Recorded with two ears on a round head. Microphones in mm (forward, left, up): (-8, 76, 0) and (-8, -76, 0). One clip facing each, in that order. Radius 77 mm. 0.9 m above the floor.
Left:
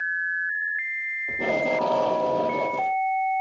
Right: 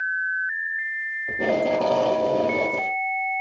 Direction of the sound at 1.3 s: 20° right (ahead or behind).